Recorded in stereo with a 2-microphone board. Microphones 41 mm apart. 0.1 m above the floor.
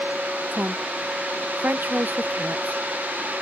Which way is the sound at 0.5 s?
55° right (ahead or behind).